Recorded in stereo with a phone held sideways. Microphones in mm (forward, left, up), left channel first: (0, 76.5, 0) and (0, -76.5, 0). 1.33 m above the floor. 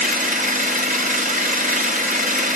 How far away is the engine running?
About 1.1 m.